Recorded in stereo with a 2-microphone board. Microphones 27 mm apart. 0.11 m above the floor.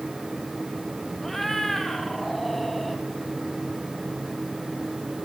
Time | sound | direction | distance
1.2 | a cat meowing | 10° left (ahead or behind) | 1.9 m